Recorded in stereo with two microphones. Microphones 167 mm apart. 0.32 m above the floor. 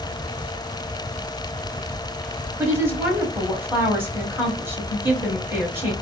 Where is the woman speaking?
15° right (ahead or behind), 1.5 m.